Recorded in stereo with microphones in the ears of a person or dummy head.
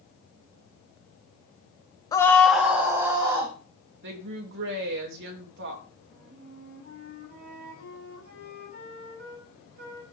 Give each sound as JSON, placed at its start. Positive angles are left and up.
{"t": 2.1, "sound": "a scream", "side_deg": 20, "distance_m": 0.9}
{"t": 4.0, "sound": "a woman speaking", "side_deg": -60, "distance_m": 2.5}
{"t": 6.1, "sound": "a flute", "side_deg": -40, "distance_m": 8.5}